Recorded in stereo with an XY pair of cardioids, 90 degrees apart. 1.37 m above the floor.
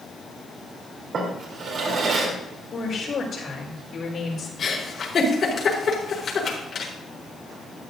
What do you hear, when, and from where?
1.1 s a drawer: 65° right, 3.5 m
2.7 s a woman speaking: 60° left, 5 m
4.6 s a giggle: 50° left, 4.5 m